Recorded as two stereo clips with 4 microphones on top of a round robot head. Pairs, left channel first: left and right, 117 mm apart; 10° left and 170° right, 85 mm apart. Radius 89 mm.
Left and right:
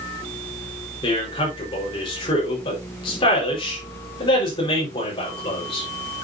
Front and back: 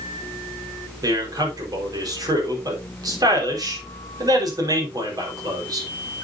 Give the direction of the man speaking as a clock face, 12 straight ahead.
7 o'clock.